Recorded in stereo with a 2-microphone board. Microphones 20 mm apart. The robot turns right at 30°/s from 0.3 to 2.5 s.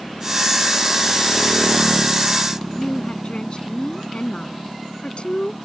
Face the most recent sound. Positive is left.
turn(degrees=50)  # may be behind; listen again after turning